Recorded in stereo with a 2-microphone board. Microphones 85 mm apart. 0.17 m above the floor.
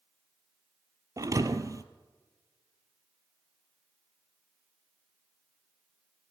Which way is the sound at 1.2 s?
45° right (ahead or behind).